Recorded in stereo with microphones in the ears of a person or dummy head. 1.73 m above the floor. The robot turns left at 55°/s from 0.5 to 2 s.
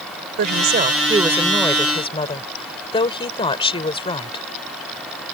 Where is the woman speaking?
125° right; by 4.4 s 150° left.